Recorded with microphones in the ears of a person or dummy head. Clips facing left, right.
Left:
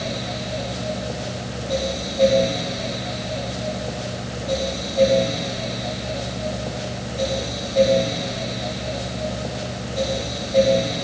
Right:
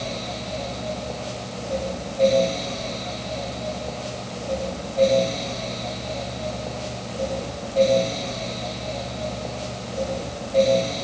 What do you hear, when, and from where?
Only background noise.